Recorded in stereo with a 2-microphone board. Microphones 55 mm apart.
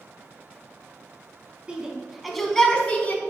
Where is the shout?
20° right (ahead or behind), 1.6 m; by 3.2 s 35° left (ahead or behind), 1.6 m.